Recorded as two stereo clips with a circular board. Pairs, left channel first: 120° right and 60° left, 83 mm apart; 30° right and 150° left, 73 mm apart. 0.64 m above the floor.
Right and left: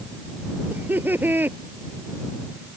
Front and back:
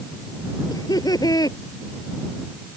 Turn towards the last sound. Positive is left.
turn(degrees=-5)